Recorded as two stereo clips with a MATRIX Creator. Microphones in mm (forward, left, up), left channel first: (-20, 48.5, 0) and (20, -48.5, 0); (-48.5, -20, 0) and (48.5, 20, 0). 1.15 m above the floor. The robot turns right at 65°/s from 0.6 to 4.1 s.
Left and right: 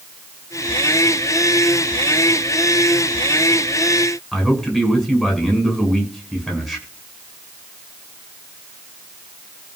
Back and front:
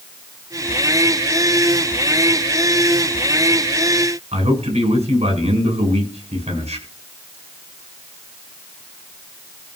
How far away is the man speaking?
About 8.5 m.